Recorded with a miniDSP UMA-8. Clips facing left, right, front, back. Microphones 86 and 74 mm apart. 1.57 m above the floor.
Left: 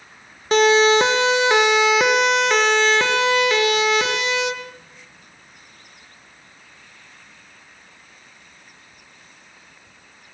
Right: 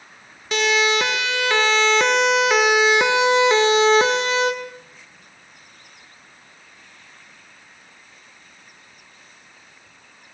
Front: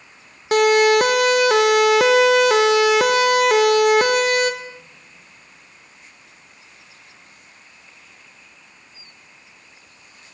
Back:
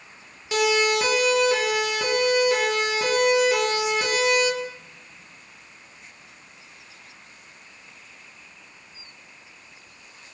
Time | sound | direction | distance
0.5 | a siren | 40° left | 2.5 m